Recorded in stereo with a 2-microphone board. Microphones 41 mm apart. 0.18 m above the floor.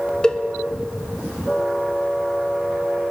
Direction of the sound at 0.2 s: 20° left (ahead or behind).